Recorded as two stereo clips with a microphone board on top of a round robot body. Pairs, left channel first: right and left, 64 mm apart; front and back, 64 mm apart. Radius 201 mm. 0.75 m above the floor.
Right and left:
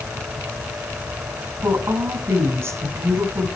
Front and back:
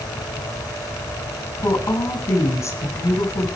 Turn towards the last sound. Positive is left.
turn(degrees=45)